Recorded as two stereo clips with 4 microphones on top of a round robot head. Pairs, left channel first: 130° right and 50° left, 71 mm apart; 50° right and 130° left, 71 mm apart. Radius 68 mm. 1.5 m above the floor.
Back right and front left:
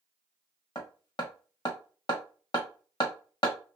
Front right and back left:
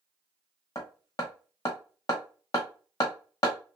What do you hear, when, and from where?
0.8 s hammering: 95° right, 0.8 m